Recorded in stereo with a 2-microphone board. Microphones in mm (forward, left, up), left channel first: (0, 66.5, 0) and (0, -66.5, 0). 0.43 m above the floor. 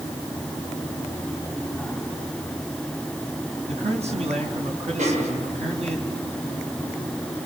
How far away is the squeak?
I don't hear a squeak.